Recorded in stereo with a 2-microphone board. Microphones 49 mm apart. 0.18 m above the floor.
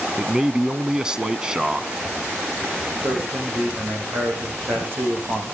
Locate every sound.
0.2 s a man speaking: 15° right (ahead or behind), 1.2 m
3.0 s a man speaking: 45° right (ahead or behind), 9 m